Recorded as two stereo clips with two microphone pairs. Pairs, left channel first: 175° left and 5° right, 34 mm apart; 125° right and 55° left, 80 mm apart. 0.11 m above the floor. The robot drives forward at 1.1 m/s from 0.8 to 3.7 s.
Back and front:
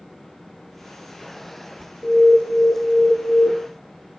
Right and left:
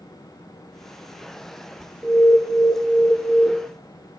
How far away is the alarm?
About 3 m.